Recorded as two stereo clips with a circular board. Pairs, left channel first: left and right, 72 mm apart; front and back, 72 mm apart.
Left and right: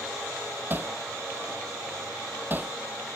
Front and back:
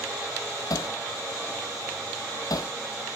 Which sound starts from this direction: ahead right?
Hammering, at 0.7 s.